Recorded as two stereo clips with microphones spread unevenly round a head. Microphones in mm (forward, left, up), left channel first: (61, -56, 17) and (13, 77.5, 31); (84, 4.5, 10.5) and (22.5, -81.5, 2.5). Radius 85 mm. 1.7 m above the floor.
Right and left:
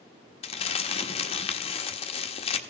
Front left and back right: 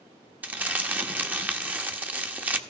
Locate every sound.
0.4 s crumpling: 55° right, 1.2 m